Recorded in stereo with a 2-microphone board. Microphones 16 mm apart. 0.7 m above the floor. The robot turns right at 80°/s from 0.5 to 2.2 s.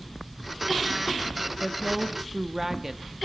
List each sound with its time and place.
1.6 s a woman speaking: 160° left, 1.2 m; by 3.1 s 150° right, 1.2 m